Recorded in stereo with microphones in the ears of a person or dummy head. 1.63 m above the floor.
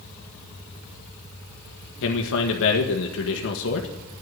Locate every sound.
2.0 s a man speaking: 75° left (ahead or behind), 1.6 m